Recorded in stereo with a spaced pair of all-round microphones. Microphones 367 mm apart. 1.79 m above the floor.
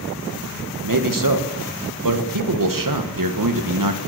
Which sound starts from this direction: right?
A man speaking, at 0.8 s.